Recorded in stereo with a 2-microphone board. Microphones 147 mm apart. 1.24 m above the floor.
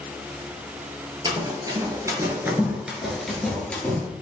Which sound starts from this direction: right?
Running footsteps, at 1.2 s.